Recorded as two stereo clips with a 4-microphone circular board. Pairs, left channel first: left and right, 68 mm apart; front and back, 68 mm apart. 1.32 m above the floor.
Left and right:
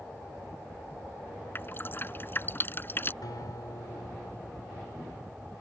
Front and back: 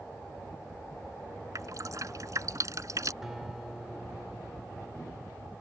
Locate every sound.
1.6 s dripping: 145° left
3.2 s a guitar: 95° left